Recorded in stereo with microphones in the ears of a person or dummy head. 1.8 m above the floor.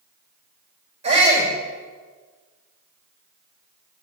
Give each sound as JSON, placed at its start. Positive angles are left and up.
{"t": 1.0, "sound": "a shout", "side_deg": -30, "distance_m": 5.5}